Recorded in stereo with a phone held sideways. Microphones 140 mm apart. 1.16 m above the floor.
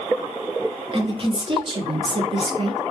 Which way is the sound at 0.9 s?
40° right (ahead or behind).